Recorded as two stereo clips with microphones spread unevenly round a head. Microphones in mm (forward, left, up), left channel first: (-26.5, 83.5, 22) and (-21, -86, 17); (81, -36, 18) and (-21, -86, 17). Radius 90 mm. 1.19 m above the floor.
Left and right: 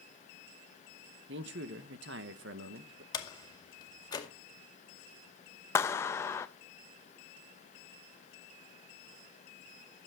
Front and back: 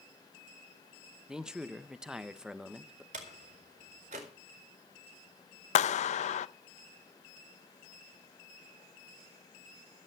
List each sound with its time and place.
1.3 s a man speaking: 70° right, 1.2 m
3.1 s a door slam: 160° left, 2 m
5.8 s a clap: 15° left, 0.5 m